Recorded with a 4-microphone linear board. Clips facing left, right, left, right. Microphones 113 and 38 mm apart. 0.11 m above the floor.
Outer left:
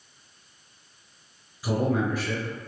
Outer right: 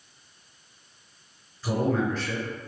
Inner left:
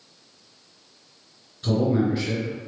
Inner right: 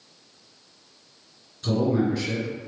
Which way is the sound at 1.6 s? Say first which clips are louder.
Even, inner left 1 dB; 10° left (ahead or behind).